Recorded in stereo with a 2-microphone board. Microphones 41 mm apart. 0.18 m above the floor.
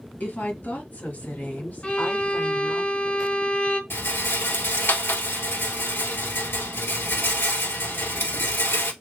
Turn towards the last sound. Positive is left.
turn(degrees=75)  # may be behind; listen again after turning